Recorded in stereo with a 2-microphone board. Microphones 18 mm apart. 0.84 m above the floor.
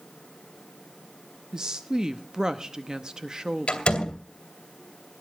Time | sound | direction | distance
1.5 | a woman speaking | 35° right (ahead or behind) | 0.8 m
3.7 | a door slam | 75° left (ahead or behind) | 2.5 m